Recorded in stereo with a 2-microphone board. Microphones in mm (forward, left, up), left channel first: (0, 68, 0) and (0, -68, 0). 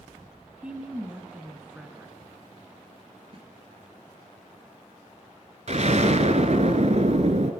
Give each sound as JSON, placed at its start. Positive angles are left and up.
{"t": 0.6, "sound": "a woman speaking", "side_deg": -10, "distance_m": 1.1}
{"t": 3.3, "sound": "a snare drum", "side_deg": -45, "distance_m": 1.9}
{"t": 5.7, "sound": "an explosion", "side_deg": -55, "distance_m": 0.9}